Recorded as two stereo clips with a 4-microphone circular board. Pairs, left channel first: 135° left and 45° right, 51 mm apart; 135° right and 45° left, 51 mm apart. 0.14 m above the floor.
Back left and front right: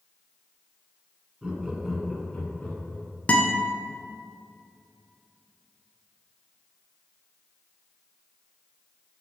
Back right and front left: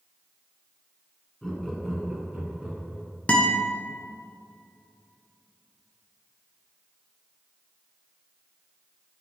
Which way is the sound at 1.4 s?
75° right.